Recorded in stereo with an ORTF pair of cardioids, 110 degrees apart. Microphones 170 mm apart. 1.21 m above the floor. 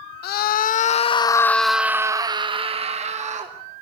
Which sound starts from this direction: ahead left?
A scream, at 0.2 s.